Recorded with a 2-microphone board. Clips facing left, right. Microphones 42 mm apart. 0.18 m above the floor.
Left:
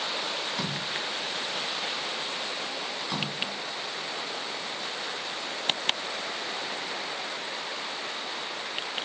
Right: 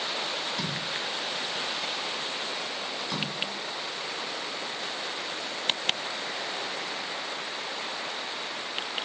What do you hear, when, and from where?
0.5 s a splash: 10° left (ahead or behind), 1.2 m